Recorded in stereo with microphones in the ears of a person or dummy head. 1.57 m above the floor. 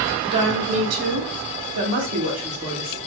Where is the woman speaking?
25° right (ahead or behind), 1.7 m; by 3.0 s 35° right (ahead or behind), 1.6 m.